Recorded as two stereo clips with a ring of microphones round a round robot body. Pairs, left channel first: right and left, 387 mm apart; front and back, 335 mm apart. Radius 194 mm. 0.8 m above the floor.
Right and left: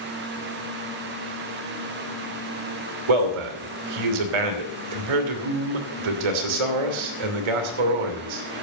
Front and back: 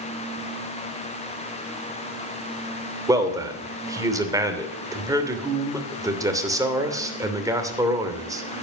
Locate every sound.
3.1 s a man speaking: 100° left, 2.5 m